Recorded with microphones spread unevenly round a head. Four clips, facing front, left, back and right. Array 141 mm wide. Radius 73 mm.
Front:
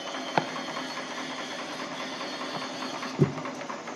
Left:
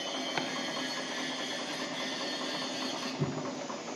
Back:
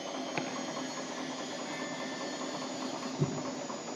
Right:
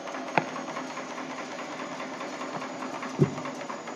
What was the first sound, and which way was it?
Chopping, 45° right.